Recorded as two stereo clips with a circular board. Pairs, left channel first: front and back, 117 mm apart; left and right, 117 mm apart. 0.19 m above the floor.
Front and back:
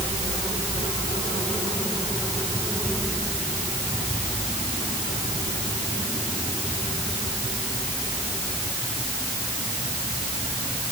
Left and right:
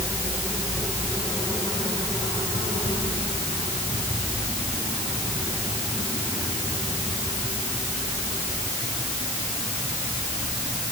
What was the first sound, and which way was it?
Only background noise.